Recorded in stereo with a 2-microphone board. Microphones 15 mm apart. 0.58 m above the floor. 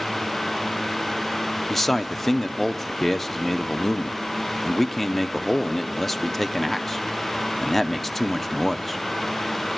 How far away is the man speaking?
About 0.7 m.